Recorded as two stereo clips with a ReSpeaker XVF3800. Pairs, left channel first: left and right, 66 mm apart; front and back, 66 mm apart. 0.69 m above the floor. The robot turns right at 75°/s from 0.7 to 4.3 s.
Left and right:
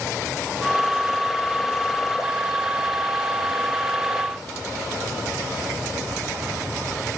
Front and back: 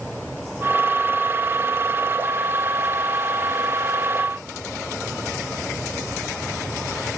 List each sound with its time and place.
Only background noise.